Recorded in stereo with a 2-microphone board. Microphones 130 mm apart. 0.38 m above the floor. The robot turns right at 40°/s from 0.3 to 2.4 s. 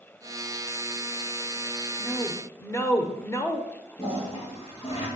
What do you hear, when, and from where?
2.0 s a woman speaking: 25° left (ahead or behind), 0.9 m; by 3.6 s 20° left (ahead or behind), 0.9 m
4.0 s a toilet flushing: 45° left (ahead or behind), 3.5 m